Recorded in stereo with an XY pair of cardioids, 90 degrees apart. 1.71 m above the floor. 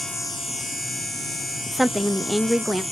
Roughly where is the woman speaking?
Ahead.